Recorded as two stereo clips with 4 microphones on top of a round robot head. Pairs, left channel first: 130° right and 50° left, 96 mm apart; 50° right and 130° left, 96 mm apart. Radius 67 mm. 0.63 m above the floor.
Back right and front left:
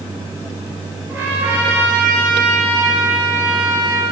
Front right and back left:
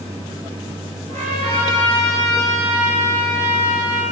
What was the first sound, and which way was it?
A trumpet, 120° left.